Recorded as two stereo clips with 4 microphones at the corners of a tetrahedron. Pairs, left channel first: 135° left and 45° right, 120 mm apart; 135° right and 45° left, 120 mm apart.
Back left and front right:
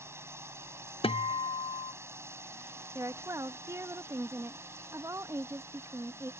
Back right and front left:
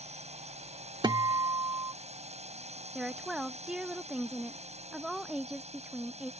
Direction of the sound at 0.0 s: 25° left.